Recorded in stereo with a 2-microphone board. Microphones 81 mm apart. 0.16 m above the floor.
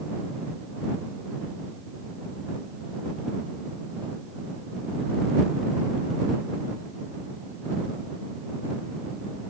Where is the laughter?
No laughter in this recording.